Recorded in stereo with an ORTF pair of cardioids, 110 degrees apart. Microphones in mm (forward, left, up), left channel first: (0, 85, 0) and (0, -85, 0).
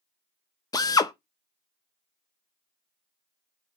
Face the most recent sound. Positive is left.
turn(degrees=20)